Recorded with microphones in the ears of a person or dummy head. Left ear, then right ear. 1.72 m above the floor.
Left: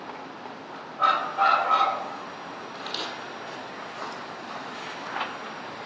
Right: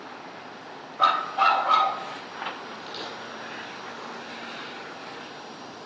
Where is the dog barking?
35° right (ahead or behind), 2.5 m.